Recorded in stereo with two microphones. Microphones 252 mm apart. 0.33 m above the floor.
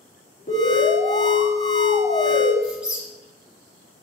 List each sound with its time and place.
0.5 s an alarm: 30° left (ahead or behind), 3 m
2.6 s a squeak: 5° right (ahead or behind), 2.5 m